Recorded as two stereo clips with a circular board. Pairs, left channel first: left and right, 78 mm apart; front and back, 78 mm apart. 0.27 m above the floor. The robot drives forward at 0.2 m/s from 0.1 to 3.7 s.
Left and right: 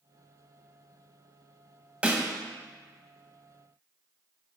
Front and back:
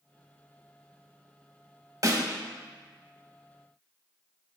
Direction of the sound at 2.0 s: 160° right.